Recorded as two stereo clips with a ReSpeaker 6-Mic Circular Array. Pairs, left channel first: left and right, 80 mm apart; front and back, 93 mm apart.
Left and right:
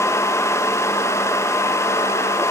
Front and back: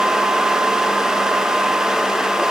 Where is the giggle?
I don't hear a giggle.